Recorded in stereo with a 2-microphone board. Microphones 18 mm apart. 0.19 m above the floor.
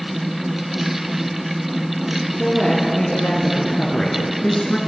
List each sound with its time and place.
2.4 s a woman speaking: 70° left (ahead or behind), 4 m; by 4.8 s 60° left (ahead or behind), 2.5 m